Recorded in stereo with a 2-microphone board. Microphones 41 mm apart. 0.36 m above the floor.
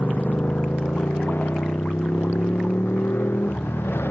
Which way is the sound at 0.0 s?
50° left (ahead or behind).